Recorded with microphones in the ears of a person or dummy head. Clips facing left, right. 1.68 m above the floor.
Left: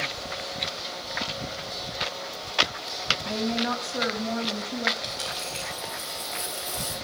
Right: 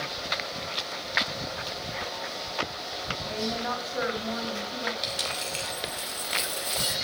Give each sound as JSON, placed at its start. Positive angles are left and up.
{"t": 3.2, "sound": "a woman speaking", "side_deg": 40, "distance_m": 2.5}
{"t": 5.0, "sound": "a dropped coin", "side_deg": -60, "distance_m": 2.0}